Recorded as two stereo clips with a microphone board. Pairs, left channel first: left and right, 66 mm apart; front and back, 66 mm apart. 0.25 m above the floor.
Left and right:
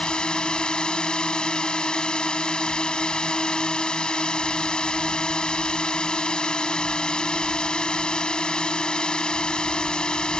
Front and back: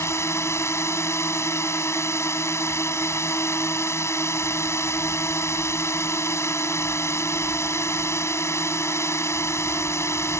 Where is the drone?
20° left.